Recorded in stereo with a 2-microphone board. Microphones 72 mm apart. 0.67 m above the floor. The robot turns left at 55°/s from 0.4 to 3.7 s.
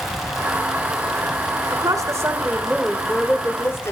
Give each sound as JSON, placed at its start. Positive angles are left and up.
{"t": 1.7, "sound": "a woman speaking", "azimuth_deg": -105, "distance_m": 2.5}